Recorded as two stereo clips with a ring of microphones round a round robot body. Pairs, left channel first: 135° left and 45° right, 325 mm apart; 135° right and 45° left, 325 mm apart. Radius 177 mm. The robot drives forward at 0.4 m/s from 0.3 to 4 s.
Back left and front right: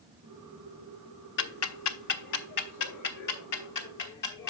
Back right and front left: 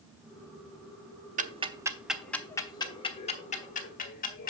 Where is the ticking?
100° left, 0.6 m; by 4.5 s 160° left, 1.3 m.